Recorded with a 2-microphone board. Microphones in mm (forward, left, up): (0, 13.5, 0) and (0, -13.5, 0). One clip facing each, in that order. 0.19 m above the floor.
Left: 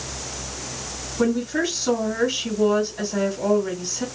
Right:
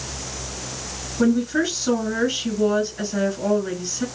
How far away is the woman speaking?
About 1.5 m.